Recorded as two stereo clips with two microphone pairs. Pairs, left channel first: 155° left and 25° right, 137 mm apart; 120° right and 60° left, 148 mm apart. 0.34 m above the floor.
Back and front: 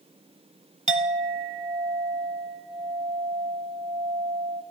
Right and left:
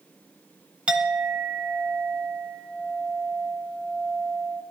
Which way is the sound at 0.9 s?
20° right.